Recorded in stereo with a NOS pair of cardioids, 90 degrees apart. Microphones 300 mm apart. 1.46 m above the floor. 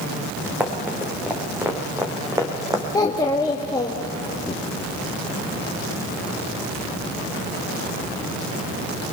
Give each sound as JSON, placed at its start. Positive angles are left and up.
{"t": 0.6, "sound": "running footsteps", "azimuth_deg": -5, "distance_m": 5.0}
{"t": 2.9, "sound": "a child speaking", "azimuth_deg": 15, "distance_m": 1.8}